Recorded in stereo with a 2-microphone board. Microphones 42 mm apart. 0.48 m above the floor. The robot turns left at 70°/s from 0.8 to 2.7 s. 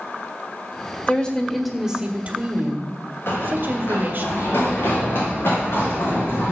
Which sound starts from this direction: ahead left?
A woman speaking, at 1.1 s.